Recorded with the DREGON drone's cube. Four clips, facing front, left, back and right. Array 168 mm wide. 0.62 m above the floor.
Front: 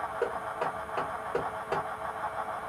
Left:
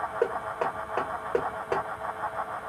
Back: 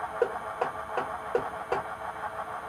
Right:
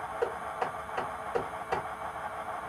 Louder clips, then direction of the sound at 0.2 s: Left 4 dB, back 4 dB; 100° left.